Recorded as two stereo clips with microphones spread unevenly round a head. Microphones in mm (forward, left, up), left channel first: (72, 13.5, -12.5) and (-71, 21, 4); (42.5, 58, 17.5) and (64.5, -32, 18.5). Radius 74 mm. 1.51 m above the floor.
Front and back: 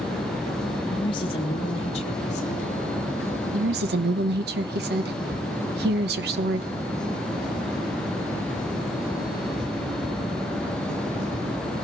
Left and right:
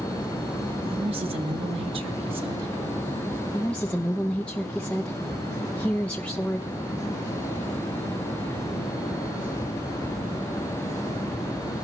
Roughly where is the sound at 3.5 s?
Behind.